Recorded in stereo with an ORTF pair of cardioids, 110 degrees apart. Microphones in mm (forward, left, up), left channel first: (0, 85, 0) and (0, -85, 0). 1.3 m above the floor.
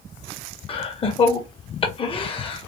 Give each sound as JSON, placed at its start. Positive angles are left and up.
{"t": 0.7, "sound": "laughter", "azimuth_deg": 35, "distance_m": 1.6}